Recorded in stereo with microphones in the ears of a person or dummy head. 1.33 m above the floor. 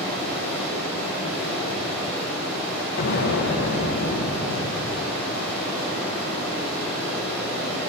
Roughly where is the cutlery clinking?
I don't hear cutlery clinking.